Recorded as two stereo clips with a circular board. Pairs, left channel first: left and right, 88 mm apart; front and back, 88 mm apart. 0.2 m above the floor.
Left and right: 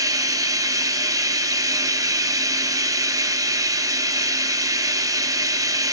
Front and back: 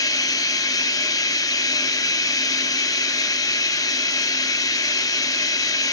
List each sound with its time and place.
0.0 s running water: 45° right, 0.9 m